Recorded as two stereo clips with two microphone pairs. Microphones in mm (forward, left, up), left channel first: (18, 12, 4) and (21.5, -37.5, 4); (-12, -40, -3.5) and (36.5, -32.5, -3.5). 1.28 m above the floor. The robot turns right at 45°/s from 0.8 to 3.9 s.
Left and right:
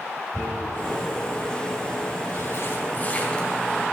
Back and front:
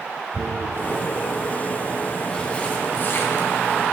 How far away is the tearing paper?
About 3 m.